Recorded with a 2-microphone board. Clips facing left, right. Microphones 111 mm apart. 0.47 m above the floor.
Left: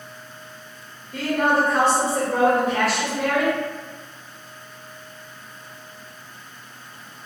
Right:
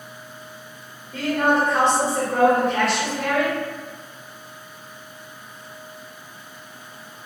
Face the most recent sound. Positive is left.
turn(degrees=0)  # may be behind; listen again after turning